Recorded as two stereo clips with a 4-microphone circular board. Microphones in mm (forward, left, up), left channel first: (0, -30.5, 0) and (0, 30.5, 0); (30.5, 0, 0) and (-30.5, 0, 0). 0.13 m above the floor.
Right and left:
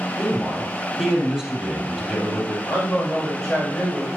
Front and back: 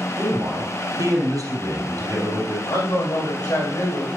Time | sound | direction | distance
0.1 | a man speaking | 170° left | 3.5 m
2.7 | a man speaking | 10° right | 6 m